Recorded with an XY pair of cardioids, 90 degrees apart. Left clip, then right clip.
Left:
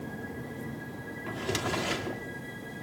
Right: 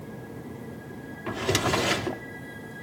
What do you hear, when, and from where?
1.3 s a drawer: 60° right, 1.4 m